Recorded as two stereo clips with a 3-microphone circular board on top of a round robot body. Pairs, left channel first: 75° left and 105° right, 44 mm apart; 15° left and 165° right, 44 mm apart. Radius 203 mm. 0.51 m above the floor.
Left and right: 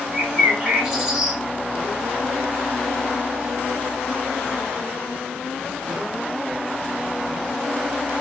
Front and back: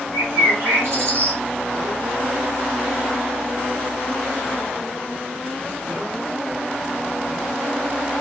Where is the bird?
Straight behind, 1.6 m.